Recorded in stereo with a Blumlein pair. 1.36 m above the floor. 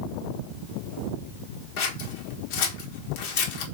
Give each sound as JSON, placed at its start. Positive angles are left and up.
{"t": 1.8, "sound": "scissors", "azimuth_deg": 45, "distance_m": 1.1}